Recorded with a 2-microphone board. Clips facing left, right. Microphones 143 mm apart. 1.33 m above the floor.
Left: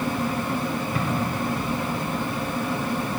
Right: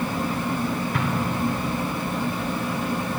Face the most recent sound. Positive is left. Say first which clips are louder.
# right 1 dB
turn(degrees=-80)